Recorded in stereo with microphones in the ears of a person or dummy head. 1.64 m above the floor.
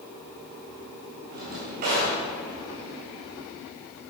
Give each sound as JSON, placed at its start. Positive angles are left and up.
{"t": 1.3, "sound": "a drawer", "side_deg": -45, "distance_m": 2.0}